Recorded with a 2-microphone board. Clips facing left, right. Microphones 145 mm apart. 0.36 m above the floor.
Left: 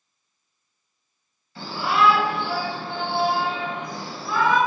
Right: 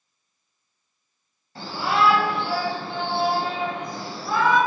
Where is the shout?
45° right (ahead or behind), 2 m.